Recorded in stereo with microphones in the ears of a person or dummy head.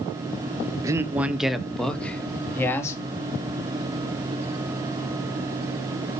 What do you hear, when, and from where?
0.8 s a man speaking: 20° right (ahead or behind), 1.1 m; by 3.0 s 15° left (ahead or behind), 2.5 m